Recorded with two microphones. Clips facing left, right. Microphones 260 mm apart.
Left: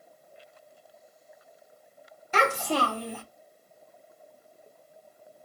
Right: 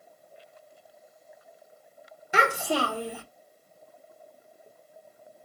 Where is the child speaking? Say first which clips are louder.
Even; 10° right (ahead or behind), 1.0 m.